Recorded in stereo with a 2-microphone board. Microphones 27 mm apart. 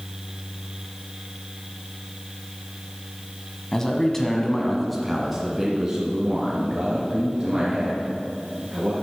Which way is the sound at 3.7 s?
20° left (ahead or behind).